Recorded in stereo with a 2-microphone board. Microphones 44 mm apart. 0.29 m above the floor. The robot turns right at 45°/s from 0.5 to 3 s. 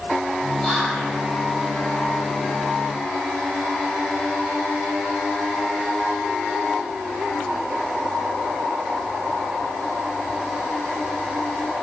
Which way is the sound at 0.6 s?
20° left (ahead or behind).